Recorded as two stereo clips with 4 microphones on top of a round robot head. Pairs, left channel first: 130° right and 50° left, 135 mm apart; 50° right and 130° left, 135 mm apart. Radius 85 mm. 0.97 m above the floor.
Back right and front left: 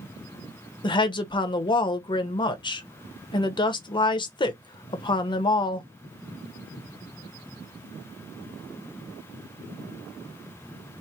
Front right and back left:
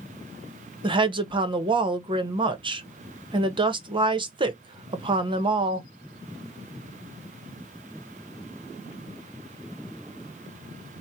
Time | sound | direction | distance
0.8 | a woman speaking | straight behind | 0.9 m